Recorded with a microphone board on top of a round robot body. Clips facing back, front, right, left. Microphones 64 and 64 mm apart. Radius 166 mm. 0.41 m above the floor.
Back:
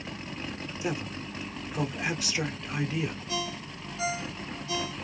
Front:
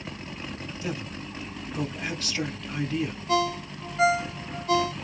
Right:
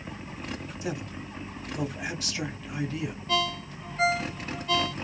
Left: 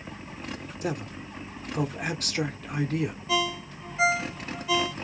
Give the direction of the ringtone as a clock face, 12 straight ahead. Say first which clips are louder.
Front 9 dB, right 2 dB; 12 o'clock.